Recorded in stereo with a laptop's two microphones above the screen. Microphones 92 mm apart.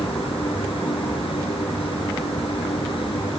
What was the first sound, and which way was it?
A machine running, 90° left.